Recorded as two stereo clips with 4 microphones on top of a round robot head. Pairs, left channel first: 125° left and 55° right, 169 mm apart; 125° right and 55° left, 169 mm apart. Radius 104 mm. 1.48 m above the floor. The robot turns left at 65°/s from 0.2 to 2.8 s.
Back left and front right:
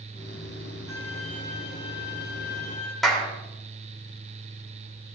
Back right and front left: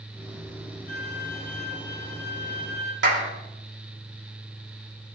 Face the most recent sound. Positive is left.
turn(degrees=35)